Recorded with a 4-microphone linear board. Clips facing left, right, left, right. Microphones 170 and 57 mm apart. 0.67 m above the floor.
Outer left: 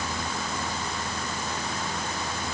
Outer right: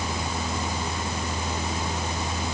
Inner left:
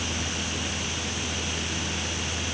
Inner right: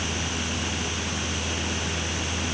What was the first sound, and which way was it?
Only background noise.